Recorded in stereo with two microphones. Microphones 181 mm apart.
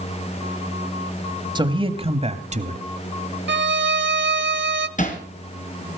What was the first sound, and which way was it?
A man speaking, 25° right (ahead or behind).